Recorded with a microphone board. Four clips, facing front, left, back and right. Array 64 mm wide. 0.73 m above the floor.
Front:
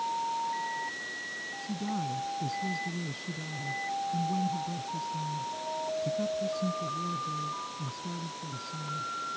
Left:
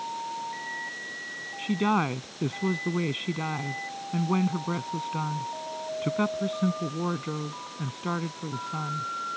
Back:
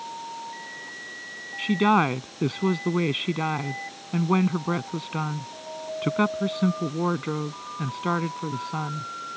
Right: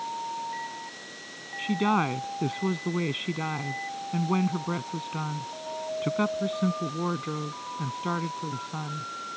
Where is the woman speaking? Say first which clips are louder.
Right 1 dB, back 15 dB; 175° right.